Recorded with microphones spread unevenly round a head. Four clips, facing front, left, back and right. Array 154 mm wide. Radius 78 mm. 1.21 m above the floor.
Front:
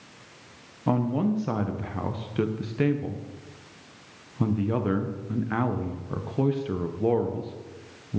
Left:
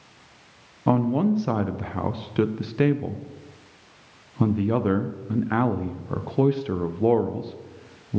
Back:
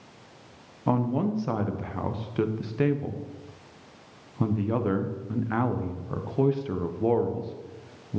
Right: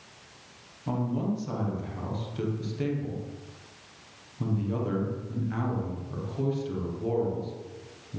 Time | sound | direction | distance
0.9 | a man speaking | 85° left | 0.7 m